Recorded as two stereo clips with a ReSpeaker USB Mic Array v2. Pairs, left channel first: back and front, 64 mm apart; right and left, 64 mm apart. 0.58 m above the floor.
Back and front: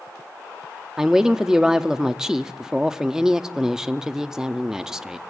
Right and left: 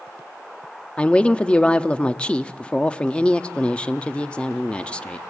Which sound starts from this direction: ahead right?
A woman speaking, at 1.0 s.